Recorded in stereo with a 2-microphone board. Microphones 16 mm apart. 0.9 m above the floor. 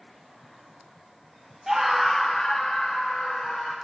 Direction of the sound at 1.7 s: 25° right (ahead or behind).